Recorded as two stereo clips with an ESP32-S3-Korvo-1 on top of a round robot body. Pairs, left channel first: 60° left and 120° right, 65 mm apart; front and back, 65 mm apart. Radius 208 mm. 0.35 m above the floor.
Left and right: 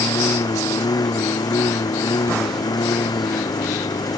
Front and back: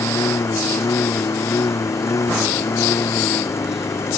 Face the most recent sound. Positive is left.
turn(degrees=45)